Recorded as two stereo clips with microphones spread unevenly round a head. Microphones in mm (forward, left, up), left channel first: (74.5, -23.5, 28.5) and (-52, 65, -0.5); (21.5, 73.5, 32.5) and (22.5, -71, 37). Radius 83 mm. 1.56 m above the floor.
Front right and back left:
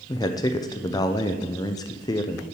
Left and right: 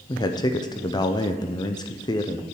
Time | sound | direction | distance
0.1 | a man speaking | 25° left | 0.6 m